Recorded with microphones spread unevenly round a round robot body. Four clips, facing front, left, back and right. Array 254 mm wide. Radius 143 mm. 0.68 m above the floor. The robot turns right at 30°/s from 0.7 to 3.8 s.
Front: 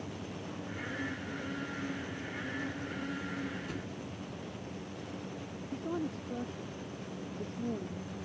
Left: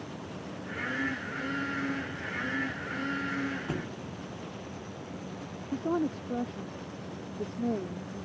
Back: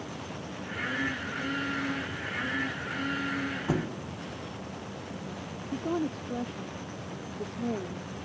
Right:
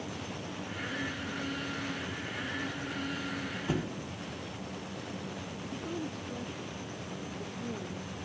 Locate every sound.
3.7 s a thud: straight behind; by 4.0 s 175° right
5.7 s a woman speaking: 130° left